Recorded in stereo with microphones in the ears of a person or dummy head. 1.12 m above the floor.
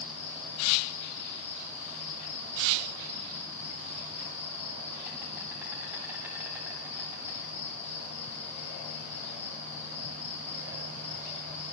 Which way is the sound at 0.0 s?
10° right (ahead or behind).